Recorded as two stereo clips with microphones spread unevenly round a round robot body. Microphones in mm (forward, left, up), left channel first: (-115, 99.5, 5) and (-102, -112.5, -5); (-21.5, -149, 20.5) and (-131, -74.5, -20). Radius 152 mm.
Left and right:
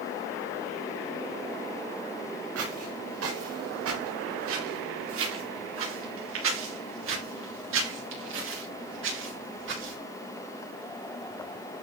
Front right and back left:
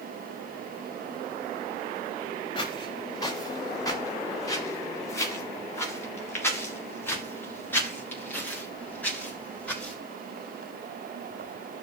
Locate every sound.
2.5 s footsteps: 90° right, 5 m; by 10.0 s 115° right, 8 m